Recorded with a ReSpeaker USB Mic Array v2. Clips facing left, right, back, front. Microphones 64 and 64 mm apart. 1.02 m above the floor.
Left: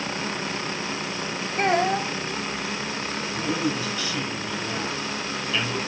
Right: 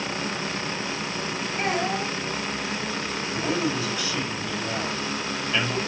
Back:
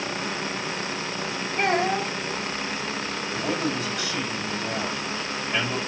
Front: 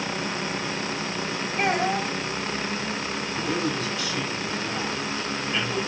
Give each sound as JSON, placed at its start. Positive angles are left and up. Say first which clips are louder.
{"t": 1.6, "sound": "a child speaking", "louder": "left 5 dB, back 1 dB", "azimuth_deg": 135, "distance_m": 3.0}
{"t": 3.3, "sound": "a man speaking", "louder": "right 1 dB, even", "azimuth_deg": -160, "distance_m": 6.0}